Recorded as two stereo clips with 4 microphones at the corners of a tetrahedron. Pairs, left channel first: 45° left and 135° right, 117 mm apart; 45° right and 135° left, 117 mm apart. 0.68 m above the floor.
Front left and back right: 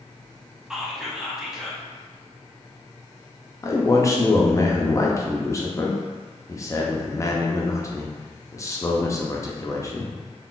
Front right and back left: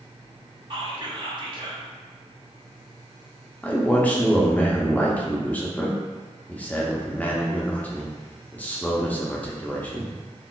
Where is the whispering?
140° left, 0.7 m.